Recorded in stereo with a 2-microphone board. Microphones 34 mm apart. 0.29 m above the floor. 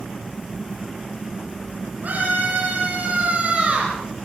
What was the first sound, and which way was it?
A scream, 50° right (ahead or behind).